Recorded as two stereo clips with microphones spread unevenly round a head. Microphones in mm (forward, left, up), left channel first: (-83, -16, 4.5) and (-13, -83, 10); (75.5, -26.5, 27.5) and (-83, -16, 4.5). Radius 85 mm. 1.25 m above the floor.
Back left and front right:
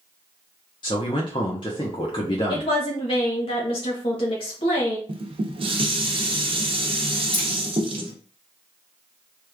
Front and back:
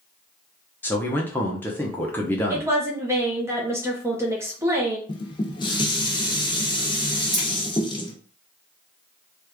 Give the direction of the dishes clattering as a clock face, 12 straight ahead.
2 o'clock.